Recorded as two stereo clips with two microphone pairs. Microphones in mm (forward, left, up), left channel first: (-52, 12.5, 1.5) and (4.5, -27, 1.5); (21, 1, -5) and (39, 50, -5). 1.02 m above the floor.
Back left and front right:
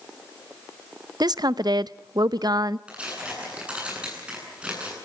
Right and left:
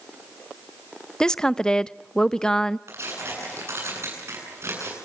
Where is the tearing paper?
40° left, 9.5 m.